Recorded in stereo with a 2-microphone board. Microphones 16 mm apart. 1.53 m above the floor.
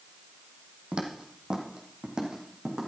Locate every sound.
0.9 s footsteps: 50° right (ahead or behind), 2.5 m; by 2.9 s 60° right (ahead or behind), 4 m